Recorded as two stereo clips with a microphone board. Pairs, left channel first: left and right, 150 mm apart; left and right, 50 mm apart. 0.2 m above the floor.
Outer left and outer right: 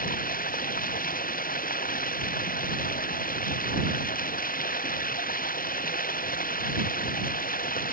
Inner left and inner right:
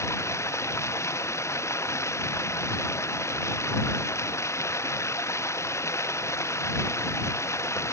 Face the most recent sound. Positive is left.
turn(degrees=70)  # may be behind; listen again after turning